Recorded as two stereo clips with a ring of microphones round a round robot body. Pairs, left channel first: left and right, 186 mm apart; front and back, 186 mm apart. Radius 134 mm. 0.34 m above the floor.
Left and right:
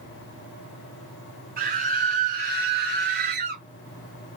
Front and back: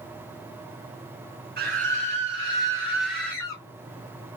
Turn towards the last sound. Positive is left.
turn(degrees=-70)